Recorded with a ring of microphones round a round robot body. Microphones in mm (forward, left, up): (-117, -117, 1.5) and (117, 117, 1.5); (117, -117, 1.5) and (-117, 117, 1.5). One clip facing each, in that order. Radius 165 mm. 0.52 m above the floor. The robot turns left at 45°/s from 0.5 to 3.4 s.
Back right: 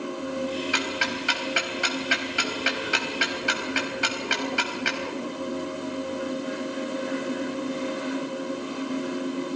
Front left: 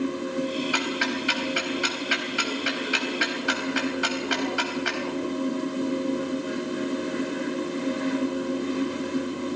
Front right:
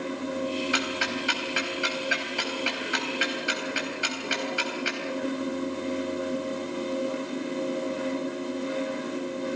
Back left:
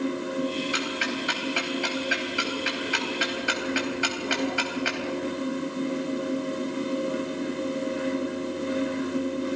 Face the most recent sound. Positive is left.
turn(degrees=170)